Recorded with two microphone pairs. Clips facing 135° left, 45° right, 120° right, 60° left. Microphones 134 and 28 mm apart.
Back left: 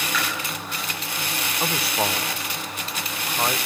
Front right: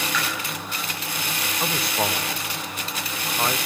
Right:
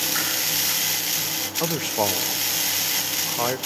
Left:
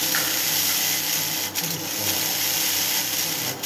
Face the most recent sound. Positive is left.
turn(degrees=-135)